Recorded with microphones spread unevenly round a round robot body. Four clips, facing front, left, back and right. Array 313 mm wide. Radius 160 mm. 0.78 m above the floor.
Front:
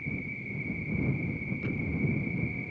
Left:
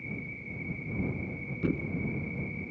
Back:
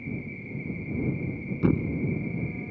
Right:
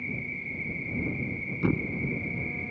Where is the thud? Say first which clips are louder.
Right 3 dB, back 13 dB; 165° right.